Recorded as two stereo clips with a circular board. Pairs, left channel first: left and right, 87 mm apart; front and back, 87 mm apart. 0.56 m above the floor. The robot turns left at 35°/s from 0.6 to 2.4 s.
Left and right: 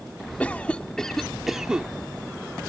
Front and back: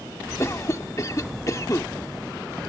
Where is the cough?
25° left; by 1.9 s 20° right.